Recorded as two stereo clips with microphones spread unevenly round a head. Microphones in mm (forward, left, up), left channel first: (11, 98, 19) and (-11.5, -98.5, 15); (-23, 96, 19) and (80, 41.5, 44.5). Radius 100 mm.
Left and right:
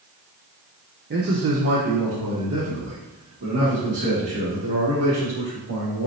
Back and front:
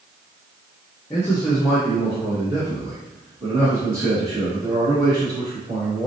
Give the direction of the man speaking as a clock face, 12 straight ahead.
5 o'clock.